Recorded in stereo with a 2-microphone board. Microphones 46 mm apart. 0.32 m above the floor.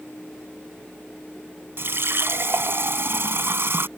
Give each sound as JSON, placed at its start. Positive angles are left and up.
{"t": 1.8, "sound": "a running tap", "side_deg": -55}